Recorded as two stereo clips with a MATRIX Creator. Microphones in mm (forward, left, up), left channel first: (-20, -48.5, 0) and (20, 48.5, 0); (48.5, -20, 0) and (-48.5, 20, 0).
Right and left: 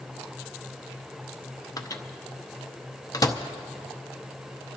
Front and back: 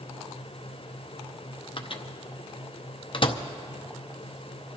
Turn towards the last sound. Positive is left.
turn(degrees=-55)